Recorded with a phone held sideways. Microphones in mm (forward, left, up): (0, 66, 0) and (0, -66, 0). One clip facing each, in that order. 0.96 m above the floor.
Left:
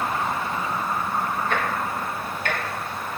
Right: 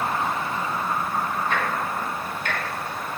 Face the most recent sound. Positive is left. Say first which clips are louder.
# even
turn(degrees=45)  # may be behind; listen again after turning